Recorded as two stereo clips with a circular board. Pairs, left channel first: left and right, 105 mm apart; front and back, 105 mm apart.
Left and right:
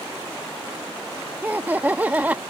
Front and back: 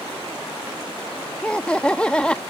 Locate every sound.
1.4 s laughter: 60° right